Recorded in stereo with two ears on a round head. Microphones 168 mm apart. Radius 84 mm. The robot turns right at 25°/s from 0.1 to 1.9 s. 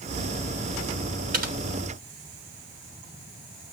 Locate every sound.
1.3 s typing on a keyboard: 45° right (ahead or behind), 0.8 m; by 1.6 s 55° right (ahead or behind), 0.8 m